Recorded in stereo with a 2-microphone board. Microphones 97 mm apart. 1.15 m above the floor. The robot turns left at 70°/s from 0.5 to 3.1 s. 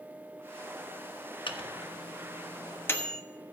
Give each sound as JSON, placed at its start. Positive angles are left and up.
{"t": 1.5, "sound": "a microwave", "side_deg": 55, "distance_m": 1.1}